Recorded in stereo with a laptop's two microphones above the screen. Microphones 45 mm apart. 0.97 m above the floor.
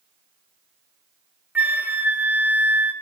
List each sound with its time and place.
1.6 s a flute: 40° right (ahead or behind), 1.0 m